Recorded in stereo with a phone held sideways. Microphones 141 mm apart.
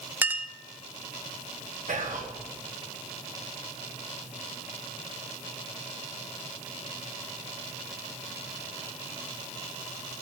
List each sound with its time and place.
0.2 s a clink: 15° right (ahead or behind), 0.6 m
1.9 s whispering: 70° right (ahead or behind), 1.4 m